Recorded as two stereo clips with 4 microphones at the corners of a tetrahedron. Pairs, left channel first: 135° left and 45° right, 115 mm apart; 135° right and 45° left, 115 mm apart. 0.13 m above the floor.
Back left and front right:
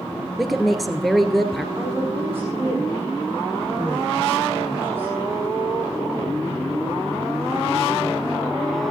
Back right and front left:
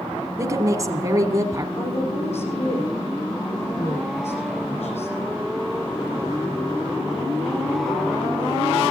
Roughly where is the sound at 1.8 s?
Behind right.